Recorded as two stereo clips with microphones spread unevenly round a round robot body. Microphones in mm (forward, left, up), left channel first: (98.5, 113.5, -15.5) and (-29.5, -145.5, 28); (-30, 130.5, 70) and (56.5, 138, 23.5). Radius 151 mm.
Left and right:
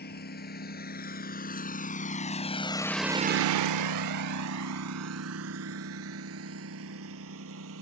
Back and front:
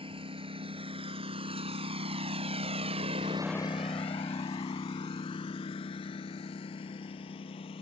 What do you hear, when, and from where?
0.0 s a lawn mower: 5° left; by 7.8 s 165° right